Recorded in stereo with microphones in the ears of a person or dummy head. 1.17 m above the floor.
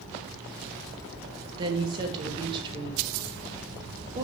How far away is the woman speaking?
About 1.2 m.